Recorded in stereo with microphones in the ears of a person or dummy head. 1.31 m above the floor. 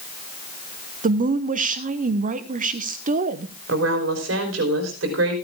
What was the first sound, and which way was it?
A woman speaking, 45° right (ahead or behind).